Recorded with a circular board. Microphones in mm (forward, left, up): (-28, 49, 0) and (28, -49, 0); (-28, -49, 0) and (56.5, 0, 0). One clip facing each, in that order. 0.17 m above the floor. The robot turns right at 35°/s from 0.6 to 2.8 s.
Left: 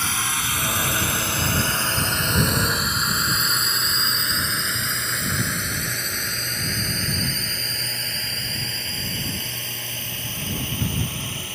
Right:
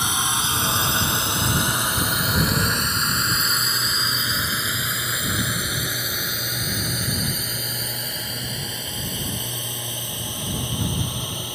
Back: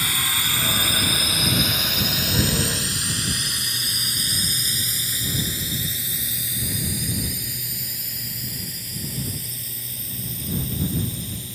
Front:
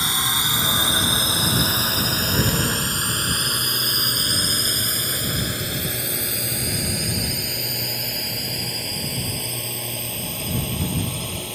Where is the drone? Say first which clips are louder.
Right 2 dB, front 3 dB; 5° right; by 11.6 s 15° left.